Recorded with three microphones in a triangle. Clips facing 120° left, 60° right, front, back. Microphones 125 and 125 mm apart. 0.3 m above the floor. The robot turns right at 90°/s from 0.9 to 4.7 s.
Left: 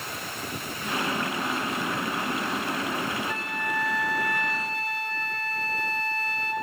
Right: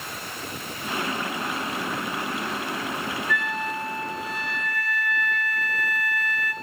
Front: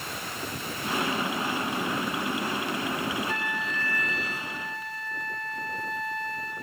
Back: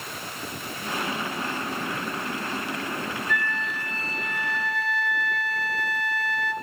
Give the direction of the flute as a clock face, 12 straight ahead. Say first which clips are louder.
Right 3 dB, back 2 dB; 10 o'clock.